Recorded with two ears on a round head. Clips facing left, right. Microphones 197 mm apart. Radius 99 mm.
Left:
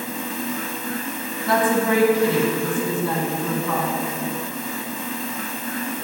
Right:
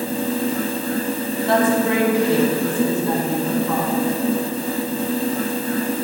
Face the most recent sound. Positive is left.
turn(degrees=65)  # may be behind; listen again after turning